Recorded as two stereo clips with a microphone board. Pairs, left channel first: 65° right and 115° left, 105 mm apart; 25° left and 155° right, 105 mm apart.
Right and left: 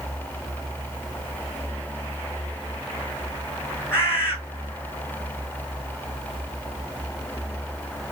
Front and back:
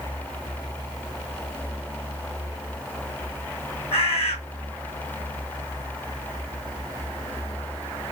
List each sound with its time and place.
3.9 s a bird: straight ahead, 4.5 m